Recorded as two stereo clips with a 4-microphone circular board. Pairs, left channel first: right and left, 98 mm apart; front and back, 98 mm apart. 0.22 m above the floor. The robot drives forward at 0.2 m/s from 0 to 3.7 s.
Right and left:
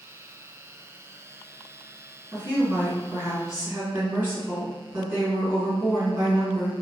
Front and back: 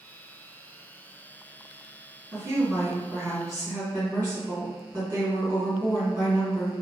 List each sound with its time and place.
2.3 s a woman speaking: 145° left, 1.7 m; by 6.7 s 155° left, 1.9 m